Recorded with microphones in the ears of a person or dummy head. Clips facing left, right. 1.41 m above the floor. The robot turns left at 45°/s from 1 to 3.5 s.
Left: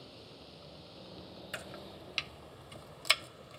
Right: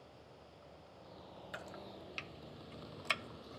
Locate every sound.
0.0 s a vehicle: 45° left (ahead or behind); by 3.6 s 70° right (ahead or behind)
1.5 s chopping: 35° left (ahead or behind); by 3.6 s 45° left (ahead or behind)